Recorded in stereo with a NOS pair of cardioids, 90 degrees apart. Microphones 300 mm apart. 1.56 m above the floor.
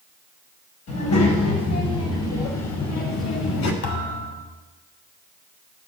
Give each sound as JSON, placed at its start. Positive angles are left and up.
{"t": 0.9, "sound": "a child speaking", "azimuth_deg": 60, "distance_m": 6.0}
{"t": 3.8, "sound": "a thud", "azimuth_deg": 50, "distance_m": 3.0}